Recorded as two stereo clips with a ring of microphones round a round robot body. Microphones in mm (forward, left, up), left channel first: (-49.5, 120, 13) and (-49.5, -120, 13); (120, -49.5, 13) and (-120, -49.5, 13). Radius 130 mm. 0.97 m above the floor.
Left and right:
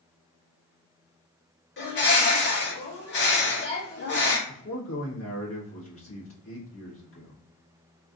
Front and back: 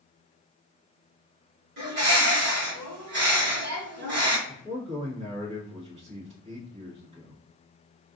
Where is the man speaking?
115° left, 1.6 m.